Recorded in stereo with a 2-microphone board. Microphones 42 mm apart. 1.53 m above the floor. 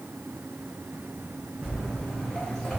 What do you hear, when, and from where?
1.6 s footsteps: 10° left (ahead or behind), 1.7 m